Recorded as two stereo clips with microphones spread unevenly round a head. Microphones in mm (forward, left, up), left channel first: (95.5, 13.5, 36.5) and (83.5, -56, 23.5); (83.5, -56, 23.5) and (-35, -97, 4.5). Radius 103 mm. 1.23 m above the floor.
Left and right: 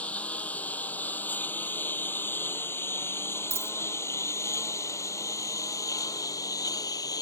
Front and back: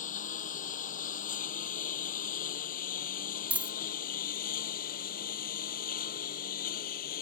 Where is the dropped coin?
80° right.